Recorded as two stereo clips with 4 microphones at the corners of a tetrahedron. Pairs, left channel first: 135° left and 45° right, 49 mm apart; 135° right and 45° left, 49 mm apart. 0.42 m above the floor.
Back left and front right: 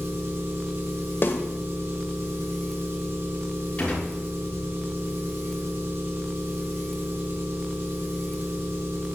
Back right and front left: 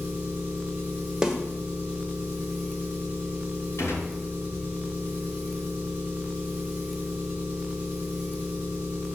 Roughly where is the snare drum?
Behind left.